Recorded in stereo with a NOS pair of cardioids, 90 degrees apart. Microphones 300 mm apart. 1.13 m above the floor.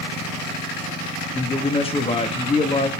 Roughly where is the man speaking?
Ahead.